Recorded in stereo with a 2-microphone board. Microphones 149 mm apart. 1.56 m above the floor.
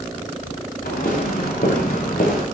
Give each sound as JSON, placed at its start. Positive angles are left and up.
{"t": 0.8, "sound": "footsteps", "side_deg": 80, "distance_m": 7.5}